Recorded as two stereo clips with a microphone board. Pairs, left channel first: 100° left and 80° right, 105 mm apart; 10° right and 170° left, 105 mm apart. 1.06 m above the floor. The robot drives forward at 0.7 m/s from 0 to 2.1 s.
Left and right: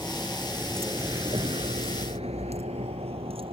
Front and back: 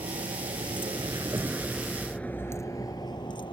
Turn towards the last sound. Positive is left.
turn(degrees=-50)